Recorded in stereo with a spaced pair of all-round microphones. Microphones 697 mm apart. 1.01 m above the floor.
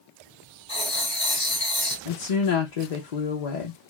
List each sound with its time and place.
0.7 s writing: 20° left (ahead or behind), 1.5 m
2.0 s a woman speaking: 65° left (ahead or behind), 0.7 m